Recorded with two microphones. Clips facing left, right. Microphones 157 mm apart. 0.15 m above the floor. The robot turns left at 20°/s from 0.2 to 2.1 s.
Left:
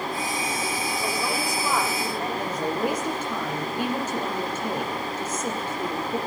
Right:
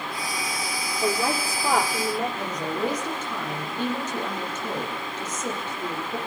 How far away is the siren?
I don't hear a siren.